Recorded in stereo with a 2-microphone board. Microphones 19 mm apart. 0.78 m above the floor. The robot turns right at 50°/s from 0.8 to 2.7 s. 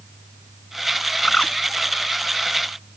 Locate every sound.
1.2 s a bird: 70° left (ahead or behind); by 1.5 s 55° left (ahead or behind)